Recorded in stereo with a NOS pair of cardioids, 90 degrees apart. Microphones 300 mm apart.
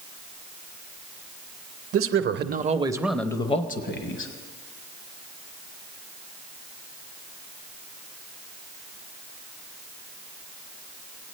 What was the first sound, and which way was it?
A man speaking, 50° right.